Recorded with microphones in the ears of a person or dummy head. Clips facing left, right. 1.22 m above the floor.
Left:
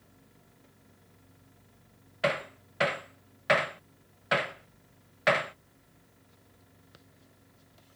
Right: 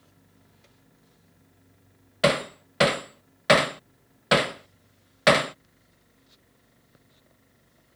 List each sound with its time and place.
2.2 s hammering: 50° right (ahead or behind)